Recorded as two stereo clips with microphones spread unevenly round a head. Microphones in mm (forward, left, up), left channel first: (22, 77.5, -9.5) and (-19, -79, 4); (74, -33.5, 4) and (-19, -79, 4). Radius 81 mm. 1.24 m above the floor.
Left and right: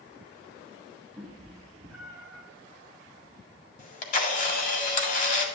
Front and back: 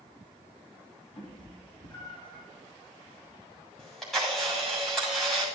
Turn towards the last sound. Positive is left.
turn(degrees=115)